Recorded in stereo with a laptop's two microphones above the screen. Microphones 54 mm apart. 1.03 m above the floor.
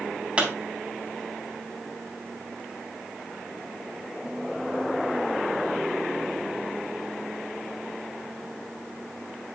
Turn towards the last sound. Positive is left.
turn(degrees=-20)  # may be behind; listen again after turning